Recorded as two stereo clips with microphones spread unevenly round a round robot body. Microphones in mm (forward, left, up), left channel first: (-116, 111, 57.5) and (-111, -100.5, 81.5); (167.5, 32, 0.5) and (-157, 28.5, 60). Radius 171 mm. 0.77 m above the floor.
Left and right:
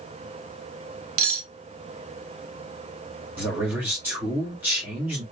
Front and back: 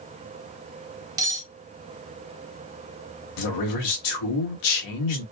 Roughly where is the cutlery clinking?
Right.